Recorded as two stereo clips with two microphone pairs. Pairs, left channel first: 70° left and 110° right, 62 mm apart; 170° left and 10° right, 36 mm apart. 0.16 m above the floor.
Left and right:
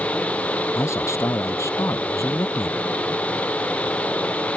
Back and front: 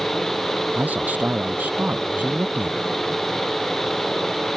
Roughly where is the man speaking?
Ahead left.